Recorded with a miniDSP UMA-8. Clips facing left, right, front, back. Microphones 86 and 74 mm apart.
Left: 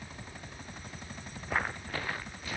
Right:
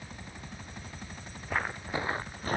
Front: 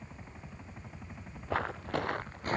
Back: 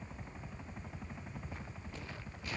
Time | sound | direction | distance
1.5 | footsteps | 5° left | ?